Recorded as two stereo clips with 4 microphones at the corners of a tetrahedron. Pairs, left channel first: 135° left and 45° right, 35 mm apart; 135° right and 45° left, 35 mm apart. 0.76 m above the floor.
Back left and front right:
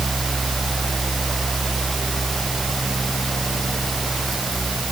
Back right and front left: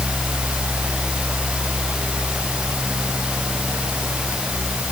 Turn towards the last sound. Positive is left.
No sound to turn to.